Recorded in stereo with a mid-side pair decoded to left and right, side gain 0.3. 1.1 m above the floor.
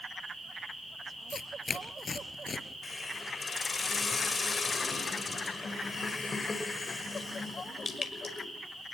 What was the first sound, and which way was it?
Tearing paper, 50° left.